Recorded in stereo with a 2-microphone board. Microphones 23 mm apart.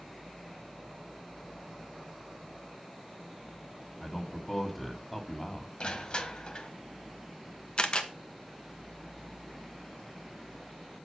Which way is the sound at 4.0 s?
10° left (ahead or behind).